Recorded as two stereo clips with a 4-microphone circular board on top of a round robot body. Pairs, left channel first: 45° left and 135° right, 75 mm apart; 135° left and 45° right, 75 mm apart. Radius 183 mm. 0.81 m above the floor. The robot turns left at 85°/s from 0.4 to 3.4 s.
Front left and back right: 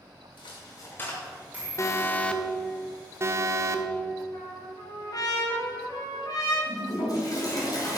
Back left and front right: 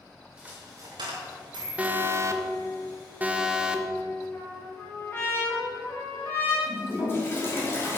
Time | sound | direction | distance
0.4 | a dropped coin | 35° left | 0.9 m
1.8 | an alarm | 20° left | 1.1 m
4.3 | a trumpet | 80° left | 2.5 m
6.7 | a toilet flushing | 80° left | 3 m